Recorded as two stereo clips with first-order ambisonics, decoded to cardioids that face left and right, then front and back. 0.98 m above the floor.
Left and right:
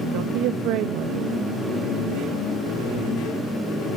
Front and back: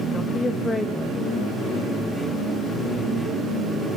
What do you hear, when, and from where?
0.1 s a woman speaking: 80° right, 1.0 m